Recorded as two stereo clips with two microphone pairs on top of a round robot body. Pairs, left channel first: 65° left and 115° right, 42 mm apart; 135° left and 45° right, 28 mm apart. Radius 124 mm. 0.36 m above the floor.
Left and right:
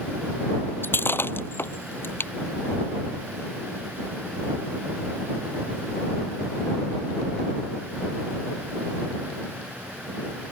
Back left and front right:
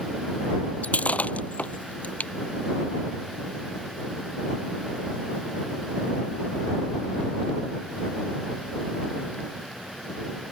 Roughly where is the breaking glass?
Left.